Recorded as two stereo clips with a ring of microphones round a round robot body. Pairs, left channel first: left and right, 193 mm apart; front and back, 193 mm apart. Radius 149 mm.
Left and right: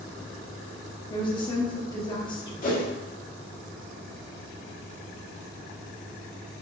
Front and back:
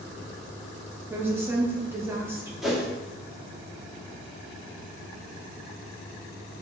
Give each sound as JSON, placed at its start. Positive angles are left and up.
{"t": 1.1, "sound": "a woman speaking", "azimuth_deg": 115, "distance_m": 0.9}
{"t": 2.6, "sound": "a whoosh", "azimuth_deg": 90, "distance_m": 1.2}